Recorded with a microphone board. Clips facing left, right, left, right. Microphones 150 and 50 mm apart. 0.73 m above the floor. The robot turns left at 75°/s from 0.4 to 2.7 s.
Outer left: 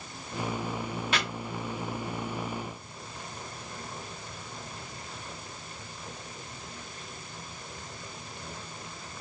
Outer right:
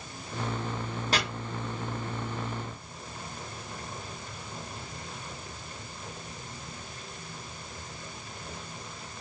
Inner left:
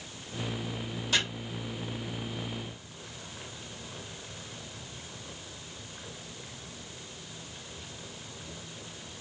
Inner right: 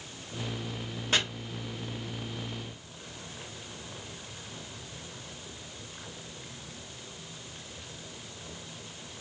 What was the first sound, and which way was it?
Chopping, 40° right (ahead or behind).